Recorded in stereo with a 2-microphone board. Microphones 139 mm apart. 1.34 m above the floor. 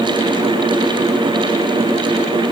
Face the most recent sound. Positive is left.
No sound to turn to.